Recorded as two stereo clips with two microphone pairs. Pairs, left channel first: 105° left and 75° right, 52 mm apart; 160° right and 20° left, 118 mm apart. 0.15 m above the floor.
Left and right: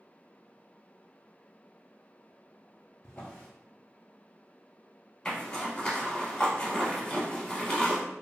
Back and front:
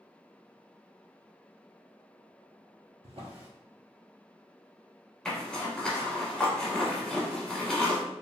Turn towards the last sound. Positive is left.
turn(degrees=125)